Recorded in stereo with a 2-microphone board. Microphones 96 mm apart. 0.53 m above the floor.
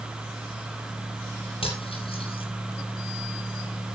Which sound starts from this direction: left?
Cutlery clinking, at 1.6 s.